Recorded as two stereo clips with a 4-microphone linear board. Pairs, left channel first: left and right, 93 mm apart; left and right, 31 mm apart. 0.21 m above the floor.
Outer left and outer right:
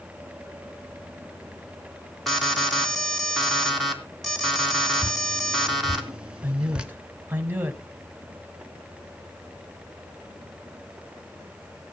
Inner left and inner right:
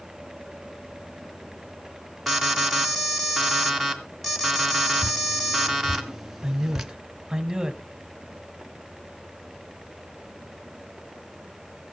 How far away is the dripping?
About 1.2 m.